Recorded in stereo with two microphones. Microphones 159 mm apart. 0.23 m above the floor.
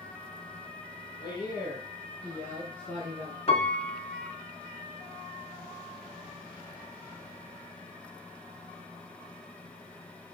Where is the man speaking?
30° left (ahead or behind), 5 m; by 3.4 s centre (ahead or behind), 4.5 m.